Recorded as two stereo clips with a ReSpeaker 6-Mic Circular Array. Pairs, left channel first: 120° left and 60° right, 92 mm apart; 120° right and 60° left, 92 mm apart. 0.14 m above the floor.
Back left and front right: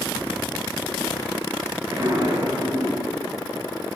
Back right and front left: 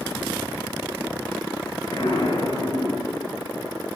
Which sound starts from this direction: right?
An explosion, at 1.9 s.